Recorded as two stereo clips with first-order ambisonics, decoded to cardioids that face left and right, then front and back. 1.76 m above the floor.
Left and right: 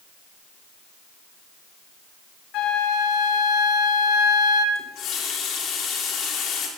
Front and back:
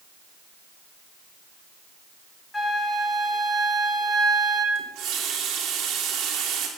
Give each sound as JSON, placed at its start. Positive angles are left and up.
{"t": 2.5, "sound": "a flute", "azimuth_deg": 80, "distance_m": 1.7}
{"t": 4.8, "sound": "a running tap", "azimuth_deg": 140, "distance_m": 3.0}